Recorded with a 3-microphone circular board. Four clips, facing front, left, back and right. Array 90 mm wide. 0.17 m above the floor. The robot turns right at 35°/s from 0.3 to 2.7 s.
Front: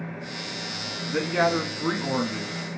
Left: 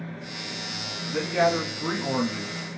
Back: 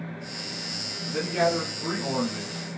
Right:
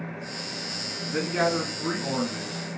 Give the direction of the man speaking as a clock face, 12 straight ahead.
1 o'clock.